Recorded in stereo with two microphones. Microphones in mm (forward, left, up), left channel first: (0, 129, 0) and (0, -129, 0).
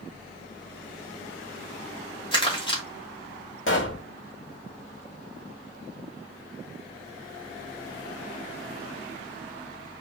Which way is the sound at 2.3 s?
20° left (ahead or behind).